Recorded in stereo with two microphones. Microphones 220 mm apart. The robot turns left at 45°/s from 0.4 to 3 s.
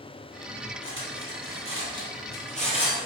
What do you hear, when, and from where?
0.8 s cutlery clinking: 60° left (ahead or behind), 2.5 m; by 3.1 s 15° left (ahead or behind), 2.5 m